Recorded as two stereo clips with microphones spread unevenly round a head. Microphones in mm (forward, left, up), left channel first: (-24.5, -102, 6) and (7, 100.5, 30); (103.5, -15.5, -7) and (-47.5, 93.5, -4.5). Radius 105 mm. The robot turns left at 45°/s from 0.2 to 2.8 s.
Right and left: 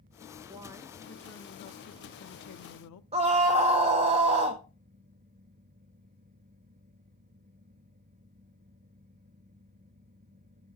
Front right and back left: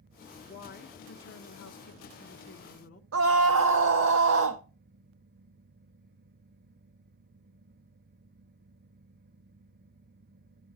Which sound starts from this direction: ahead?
A woman speaking, at 0.5 s.